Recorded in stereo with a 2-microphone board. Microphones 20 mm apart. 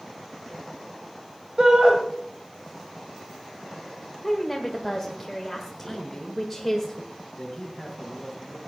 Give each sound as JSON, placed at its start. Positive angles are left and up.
{"t": 1.6, "sound": "a shout", "side_deg": -45, "distance_m": 1.7}
{"t": 4.2, "sound": "a woman speaking", "side_deg": 5, "distance_m": 1.4}
{"t": 5.9, "sound": "a man speaking", "side_deg": 15, "distance_m": 3.0}